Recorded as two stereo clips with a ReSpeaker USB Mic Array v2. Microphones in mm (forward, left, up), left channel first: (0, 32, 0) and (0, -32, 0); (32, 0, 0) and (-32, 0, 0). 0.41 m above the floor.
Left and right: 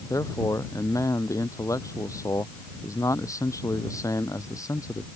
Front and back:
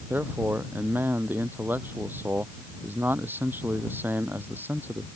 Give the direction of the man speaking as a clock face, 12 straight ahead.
8 o'clock.